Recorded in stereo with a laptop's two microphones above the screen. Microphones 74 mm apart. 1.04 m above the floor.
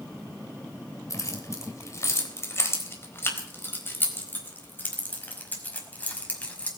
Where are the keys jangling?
45° left (ahead or behind), 3.5 m; by 6.7 s 20° left (ahead or behind), 5.5 m.